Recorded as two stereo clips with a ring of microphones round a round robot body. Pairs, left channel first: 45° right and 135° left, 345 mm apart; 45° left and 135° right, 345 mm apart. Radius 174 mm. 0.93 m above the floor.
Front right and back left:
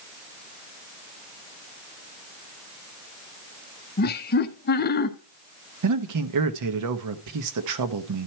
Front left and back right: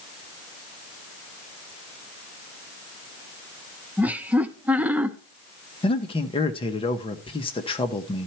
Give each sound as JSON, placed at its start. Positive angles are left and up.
{"t": 4.0, "sound": "laughter", "azimuth_deg": -55, "distance_m": 0.7}
{"t": 5.8, "sound": "a man speaking", "azimuth_deg": 115, "distance_m": 1.0}